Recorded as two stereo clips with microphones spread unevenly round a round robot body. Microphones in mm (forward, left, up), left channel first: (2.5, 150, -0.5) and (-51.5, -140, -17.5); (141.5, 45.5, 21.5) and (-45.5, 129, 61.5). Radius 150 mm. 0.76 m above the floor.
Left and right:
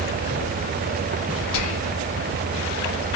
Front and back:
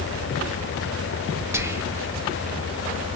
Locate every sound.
1.5 s whispering: 70° left, 0.8 m